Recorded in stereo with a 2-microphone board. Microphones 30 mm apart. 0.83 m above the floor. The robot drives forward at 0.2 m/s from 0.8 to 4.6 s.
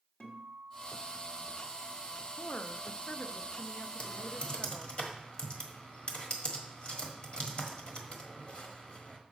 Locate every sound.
0.2 s a guitar: 45° left (ahead or behind), 1.7 m; by 2.1 s 55° left (ahead or behind), 1.5 m
2.4 s a woman speaking: 55° left (ahead or behind), 0.5 m; by 5.0 s 40° left (ahead or behind), 0.7 m
4.0 s typing on a keyboard: 35° left (ahead or behind), 1.2 m; by 9.2 s 30° left (ahead or behind), 1.3 m